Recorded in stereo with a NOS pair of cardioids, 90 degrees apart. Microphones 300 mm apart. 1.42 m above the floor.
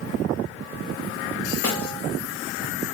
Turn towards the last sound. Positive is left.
turn(degrees=70)